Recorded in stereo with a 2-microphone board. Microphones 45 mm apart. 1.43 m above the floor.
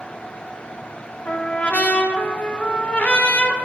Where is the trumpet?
35° left (ahead or behind), 0.6 m.